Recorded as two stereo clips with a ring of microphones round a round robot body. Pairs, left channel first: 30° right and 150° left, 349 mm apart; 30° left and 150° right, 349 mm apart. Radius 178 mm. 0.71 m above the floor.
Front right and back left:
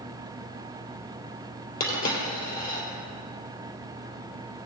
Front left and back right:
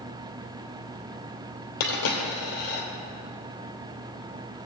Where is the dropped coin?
35° left, 2.5 m.